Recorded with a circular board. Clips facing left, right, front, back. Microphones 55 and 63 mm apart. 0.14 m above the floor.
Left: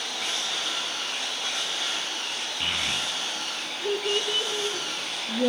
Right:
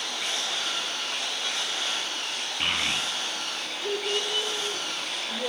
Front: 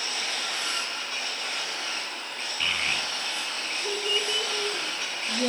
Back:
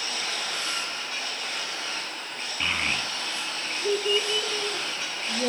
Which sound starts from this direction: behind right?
A child speaking, at 2.6 s.